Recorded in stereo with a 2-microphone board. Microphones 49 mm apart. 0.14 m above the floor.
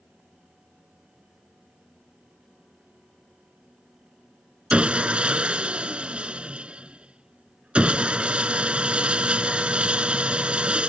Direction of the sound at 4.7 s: 25° right (ahead or behind).